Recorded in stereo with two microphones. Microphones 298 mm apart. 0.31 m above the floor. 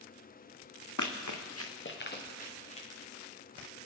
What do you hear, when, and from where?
1.0 s running footsteps: 75° left (ahead or behind), 1.1 m; by 2.9 s 20° left (ahead or behind), 3 m